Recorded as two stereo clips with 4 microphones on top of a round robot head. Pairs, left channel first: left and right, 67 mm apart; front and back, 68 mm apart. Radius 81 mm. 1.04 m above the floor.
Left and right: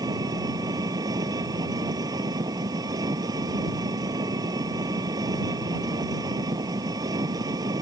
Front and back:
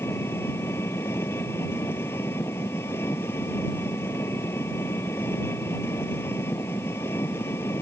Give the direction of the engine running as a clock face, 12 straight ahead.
2 o'clock.